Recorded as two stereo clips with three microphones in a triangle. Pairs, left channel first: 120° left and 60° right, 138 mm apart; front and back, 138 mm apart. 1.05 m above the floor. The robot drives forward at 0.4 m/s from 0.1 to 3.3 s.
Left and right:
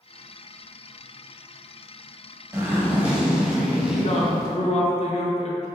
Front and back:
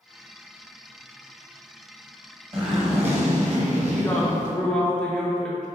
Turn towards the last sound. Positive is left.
turn(degrees=80)